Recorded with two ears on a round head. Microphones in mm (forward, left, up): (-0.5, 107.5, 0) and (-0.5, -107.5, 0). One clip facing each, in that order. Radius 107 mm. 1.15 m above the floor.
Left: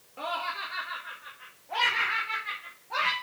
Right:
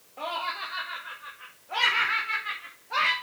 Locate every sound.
0.2 s laughter: 15° left (ahead or behind), 1.7 m; by 3.1 s 25° right (ahead or behind), 2.5 m